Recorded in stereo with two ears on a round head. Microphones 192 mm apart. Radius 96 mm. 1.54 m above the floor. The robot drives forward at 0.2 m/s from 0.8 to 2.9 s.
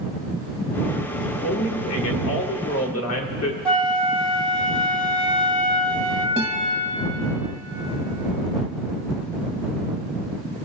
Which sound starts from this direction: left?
A man speaking, at 1.2 s.